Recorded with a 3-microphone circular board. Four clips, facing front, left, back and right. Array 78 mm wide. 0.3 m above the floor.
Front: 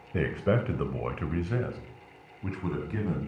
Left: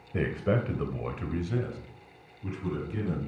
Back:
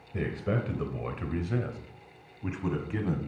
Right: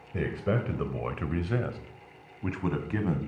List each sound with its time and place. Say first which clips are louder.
0.1 s a man speaking: left 1 dB, front 4 dB; 25° left, 1.0 m; by 3.2 s 95° right, 1.9 m